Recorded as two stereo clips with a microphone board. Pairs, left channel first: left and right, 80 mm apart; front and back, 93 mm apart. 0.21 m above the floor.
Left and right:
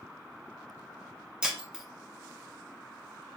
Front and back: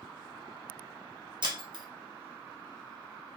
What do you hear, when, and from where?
1.4 s breaking glass: 170° right, 1.0 m